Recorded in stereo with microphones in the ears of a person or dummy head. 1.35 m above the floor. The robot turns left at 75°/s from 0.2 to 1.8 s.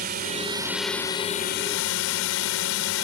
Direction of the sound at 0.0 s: 135° right.